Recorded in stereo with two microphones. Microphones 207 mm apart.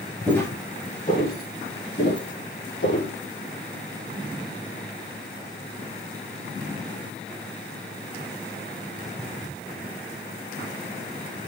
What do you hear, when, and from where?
0.3 s footsteps: 5° left (ahead or behind), 1.8 m; by 3.1 s 65° left (ahead or behind), 4 m